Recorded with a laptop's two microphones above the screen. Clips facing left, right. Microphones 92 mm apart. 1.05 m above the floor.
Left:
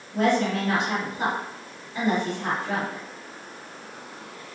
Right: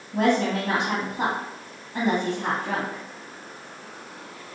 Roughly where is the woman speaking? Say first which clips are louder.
Right 1 dB; right.